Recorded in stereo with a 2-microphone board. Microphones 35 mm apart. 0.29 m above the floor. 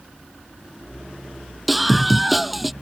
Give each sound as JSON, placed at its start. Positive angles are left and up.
{"t": 1.7, "sound": "a scream", "side_deg": 0}